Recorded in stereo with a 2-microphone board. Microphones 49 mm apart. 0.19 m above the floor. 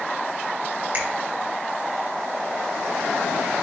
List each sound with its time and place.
0.9 s a finger snap: 40° right (ahead or behind), 2.5 m